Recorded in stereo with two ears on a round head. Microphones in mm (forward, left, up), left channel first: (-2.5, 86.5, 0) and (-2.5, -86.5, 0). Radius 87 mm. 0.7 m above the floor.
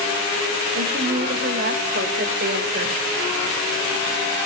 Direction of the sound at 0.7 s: 50° right (ahead or behind).